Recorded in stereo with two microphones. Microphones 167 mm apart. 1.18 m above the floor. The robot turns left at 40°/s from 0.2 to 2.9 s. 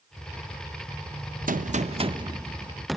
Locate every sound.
1.5 s a gunshot: 120° right, 0.7 m; by 3.0 s straight behind, 0.7 m